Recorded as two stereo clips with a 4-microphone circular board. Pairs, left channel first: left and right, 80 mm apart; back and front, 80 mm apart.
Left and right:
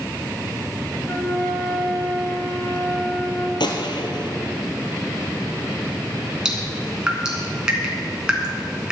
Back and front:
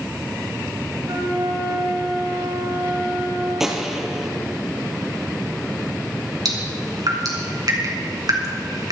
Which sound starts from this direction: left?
A gunshot, at 3.6 s.